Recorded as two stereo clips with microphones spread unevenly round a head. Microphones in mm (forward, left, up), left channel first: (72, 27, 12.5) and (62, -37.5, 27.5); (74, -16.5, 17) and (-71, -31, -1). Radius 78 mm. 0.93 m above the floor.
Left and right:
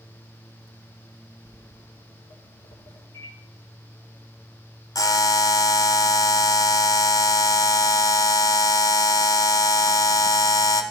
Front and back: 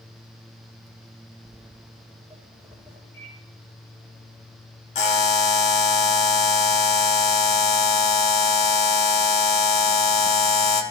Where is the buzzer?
50° left, 1.2 m.